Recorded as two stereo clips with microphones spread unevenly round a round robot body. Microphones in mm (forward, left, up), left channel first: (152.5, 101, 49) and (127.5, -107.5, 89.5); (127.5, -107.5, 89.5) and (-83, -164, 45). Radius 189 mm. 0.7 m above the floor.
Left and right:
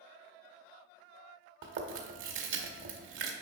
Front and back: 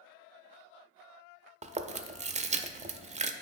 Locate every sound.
1.6 s chewing: 100° right, 0.6 m